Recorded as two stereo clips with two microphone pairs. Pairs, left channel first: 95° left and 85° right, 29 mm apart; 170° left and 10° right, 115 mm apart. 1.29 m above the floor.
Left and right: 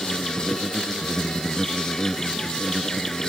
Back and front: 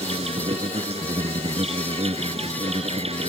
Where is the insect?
20° left.